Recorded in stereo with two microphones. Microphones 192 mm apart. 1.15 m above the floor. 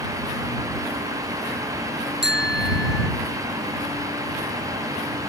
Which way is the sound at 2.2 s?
75° right (ahead or behind).